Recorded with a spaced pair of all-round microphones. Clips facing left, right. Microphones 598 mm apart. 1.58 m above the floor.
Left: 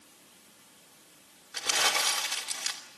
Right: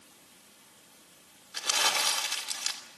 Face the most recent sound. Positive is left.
turn(degrees=70)  # may be behind; listen again after turning